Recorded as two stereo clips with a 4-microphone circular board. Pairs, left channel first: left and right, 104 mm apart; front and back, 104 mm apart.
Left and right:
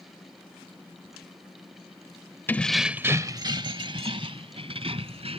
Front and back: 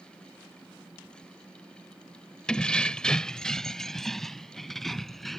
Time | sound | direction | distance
2.5 | keys jangling | 65° left | ?